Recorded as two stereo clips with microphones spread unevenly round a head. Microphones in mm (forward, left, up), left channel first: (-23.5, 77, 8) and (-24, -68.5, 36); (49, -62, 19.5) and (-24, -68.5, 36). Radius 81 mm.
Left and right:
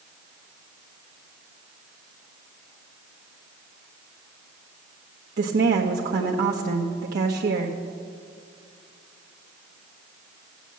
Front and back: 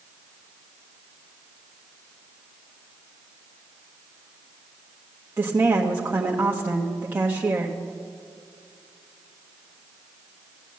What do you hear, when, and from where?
5.4 s a woman speaking: 110° right, 1.1 m